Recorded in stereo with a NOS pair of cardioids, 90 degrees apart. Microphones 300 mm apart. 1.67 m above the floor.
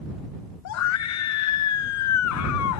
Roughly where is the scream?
Ahead left.